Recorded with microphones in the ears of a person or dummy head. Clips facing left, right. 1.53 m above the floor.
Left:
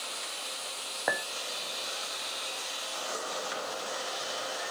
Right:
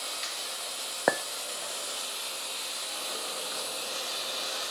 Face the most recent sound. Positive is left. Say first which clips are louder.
# right 6 dB
turn(degrees=-45)  # may be behind; listen again after turning